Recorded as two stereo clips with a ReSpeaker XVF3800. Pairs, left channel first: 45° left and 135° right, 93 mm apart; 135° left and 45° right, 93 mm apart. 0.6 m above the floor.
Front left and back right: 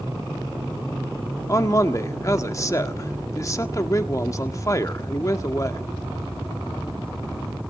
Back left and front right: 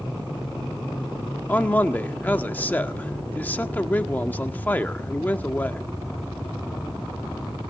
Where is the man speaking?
70° left, 1.4 m.